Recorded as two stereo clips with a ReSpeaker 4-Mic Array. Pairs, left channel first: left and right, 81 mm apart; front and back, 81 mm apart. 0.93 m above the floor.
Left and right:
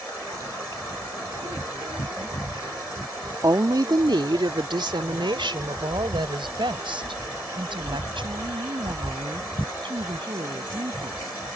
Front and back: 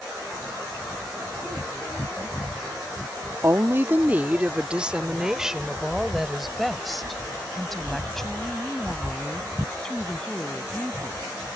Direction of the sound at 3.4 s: 130° right.